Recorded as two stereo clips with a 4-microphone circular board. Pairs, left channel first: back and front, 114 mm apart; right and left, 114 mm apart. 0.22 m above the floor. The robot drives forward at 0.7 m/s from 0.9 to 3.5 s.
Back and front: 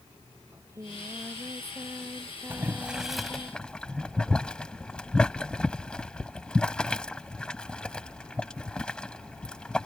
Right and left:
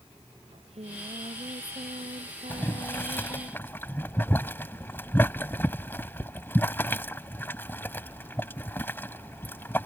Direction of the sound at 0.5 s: 65° left.